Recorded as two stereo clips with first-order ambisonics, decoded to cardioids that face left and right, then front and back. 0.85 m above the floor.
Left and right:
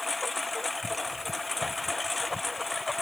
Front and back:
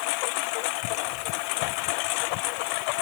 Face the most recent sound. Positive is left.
turn(degrees=10)